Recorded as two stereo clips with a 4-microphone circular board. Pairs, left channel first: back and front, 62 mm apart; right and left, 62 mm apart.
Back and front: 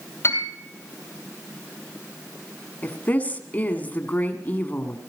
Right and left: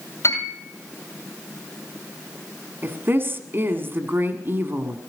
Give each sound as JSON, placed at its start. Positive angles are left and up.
{"t": 0.2, "sound": "a piano", "azimuth_deg": -130, "distance_m": 3.0}
{"t": 2.8, "sound": "a woman speaking", "azimuth_deg": 125, "distance_m": 1.6}